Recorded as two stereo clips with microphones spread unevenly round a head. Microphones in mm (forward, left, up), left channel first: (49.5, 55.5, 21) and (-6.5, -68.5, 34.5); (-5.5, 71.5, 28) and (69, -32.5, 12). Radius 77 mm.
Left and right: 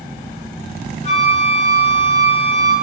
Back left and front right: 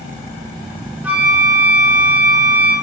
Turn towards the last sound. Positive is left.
turn(degrees=25)